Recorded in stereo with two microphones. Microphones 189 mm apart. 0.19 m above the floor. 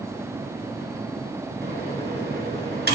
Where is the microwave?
60° right (ahead or behind), 2.5 m.